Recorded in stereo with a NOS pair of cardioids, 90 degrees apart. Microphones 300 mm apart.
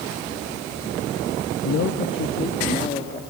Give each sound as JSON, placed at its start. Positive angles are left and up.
{"t": 1.6, "sound": "a man speaking", "azimuth_deg": 65, "distance_m": 1.2}